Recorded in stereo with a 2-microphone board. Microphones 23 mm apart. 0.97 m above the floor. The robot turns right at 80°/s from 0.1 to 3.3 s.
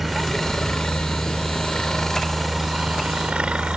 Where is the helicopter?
5° right (ahead or behind); by 3.8 s 65° right (ahead or behind).